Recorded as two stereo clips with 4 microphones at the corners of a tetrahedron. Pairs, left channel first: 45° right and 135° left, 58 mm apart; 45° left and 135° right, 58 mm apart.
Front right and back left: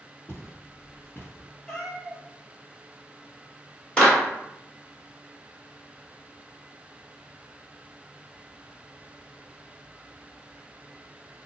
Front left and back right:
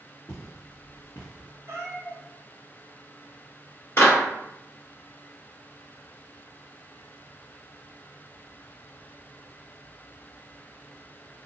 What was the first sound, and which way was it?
Footsteps, straight ahead.